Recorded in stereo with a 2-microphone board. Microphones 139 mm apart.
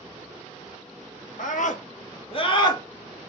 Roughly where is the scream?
Left.